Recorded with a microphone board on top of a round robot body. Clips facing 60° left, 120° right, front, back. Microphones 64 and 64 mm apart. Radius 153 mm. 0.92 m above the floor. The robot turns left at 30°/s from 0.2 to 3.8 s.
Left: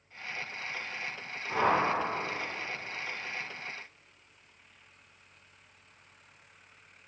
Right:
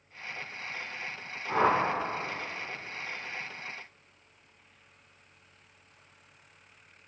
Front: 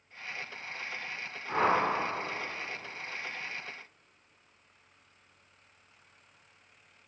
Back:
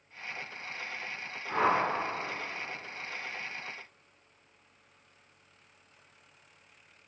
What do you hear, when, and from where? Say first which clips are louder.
1.5 s a whoosh: right 2 dB, even; 80° right, 0.7 m; by 1.8 s 90° right, 0.7 m